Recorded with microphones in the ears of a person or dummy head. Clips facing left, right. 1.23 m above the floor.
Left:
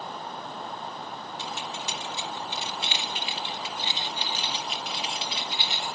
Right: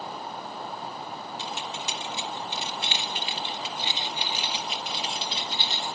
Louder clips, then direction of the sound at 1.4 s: Left 1 dB; 65° right (ahead or behind).